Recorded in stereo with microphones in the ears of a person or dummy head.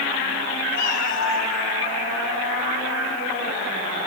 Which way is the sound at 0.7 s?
55° left (ahead or behind).